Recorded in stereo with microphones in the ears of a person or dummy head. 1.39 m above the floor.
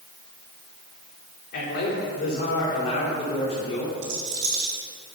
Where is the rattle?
85° right, 3 m.